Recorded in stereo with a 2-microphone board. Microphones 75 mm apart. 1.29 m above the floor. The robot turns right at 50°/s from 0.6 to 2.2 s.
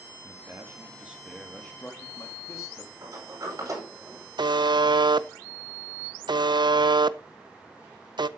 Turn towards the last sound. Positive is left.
turn(degrees=-70)  # may be behind; listen again after turning